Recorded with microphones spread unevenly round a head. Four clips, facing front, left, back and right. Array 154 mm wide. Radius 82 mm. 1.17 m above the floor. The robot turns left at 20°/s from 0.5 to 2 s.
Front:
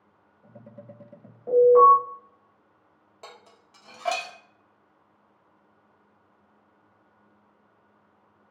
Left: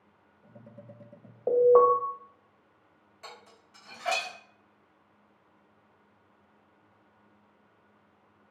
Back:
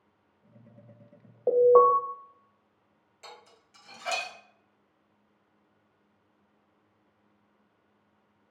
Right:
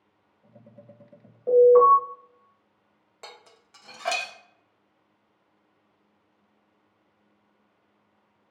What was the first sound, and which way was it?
An alarm, 160° left.